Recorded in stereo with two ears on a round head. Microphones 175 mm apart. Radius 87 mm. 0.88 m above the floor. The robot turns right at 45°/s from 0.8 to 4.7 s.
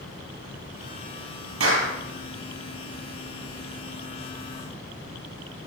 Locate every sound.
1.6 s a clap: 75° right (ahead or behind), 8 m; by 1.9 s 60° right (ahead or behind), 8 m